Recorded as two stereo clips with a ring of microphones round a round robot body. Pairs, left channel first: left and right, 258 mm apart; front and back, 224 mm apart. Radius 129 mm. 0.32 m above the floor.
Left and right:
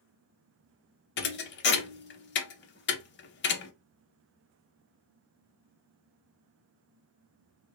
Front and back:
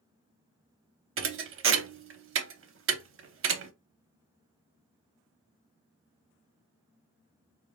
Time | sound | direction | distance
1.2 | a thud | 145° left | 0.5 m